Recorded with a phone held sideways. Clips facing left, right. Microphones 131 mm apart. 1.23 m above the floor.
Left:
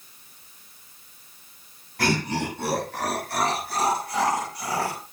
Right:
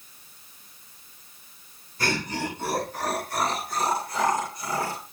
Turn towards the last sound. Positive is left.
turn(degrees=85)